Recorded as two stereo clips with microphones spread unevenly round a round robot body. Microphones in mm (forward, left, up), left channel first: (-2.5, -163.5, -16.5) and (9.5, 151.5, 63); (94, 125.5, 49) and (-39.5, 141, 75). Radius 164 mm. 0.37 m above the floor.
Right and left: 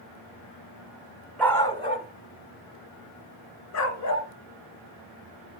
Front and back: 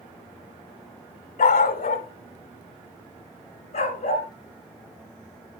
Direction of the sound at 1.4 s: 10° right.